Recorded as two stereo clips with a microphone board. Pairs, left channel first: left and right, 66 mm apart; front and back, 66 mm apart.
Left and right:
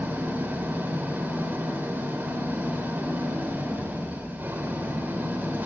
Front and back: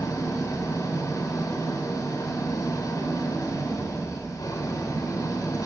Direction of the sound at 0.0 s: 30° right.